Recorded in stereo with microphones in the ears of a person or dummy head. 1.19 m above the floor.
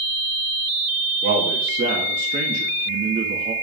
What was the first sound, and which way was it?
A man speaking, 35° right (ahead or behind).